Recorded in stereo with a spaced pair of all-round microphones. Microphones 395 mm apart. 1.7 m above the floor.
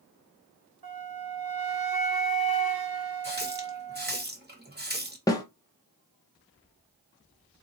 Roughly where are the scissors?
I don't hear scissors.